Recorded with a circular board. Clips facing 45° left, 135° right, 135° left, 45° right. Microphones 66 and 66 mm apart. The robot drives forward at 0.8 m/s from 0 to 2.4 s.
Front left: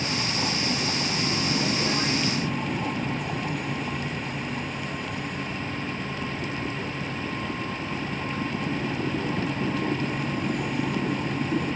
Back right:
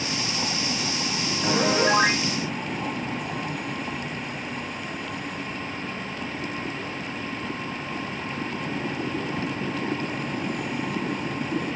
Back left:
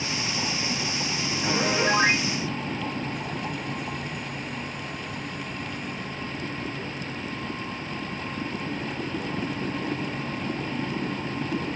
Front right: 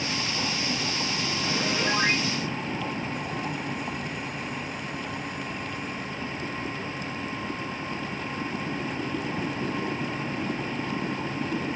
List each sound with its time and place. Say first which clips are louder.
1.4 s a piano: back right 9 dB, back left 5 dB; 155° right